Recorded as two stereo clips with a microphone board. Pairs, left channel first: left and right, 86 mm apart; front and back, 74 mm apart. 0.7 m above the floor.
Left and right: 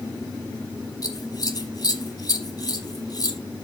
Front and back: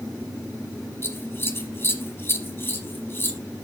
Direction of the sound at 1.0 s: 55° left.